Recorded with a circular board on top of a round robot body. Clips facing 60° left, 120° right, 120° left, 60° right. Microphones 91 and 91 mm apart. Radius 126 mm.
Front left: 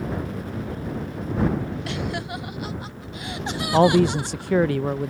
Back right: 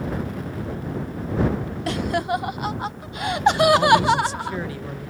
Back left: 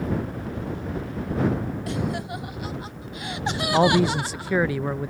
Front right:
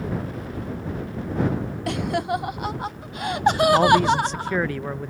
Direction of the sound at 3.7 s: 35° left.